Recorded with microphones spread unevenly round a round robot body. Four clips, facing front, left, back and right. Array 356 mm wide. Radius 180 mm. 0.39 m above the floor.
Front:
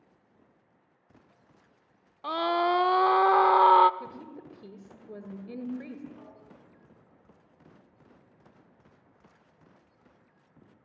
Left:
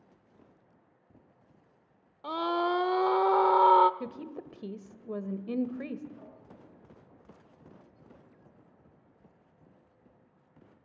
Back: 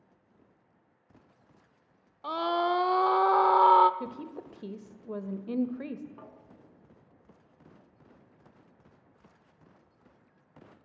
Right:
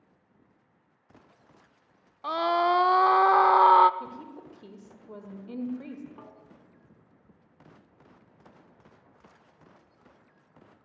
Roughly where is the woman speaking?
Behind left.